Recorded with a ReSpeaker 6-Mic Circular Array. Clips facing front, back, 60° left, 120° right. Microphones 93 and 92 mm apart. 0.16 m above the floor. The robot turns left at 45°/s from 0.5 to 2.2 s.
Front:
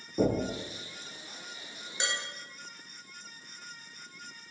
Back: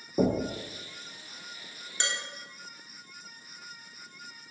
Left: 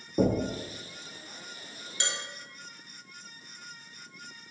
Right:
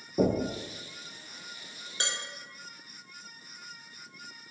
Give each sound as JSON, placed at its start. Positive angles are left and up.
{"t": 0.2, "sound": "knocking", "azimuth_deg": 130, "distance_m": 0.8}
{"t": 2.0, "sound": "dishes clattering", "azimuth_deg": -80, "distance_m": 1.3}